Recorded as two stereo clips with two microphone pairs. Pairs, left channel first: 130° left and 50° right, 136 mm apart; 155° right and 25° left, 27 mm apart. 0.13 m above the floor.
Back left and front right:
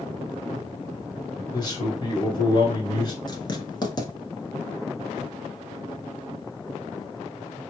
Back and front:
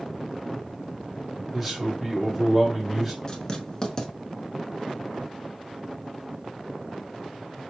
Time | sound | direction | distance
1.5 | a man speaking | 120° left | 1.3 m
3.3 | writing | 165° left | 0.7 m